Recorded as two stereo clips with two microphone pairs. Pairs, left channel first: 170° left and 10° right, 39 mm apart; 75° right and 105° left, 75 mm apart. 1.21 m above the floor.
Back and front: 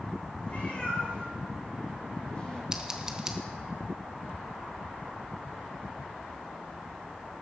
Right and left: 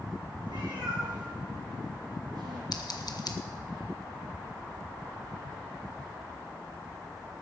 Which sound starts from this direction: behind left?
A cat meowing, at 0.5 s.